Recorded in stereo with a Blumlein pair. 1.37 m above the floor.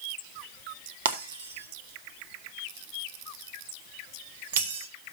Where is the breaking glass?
60° right, 1.6 m.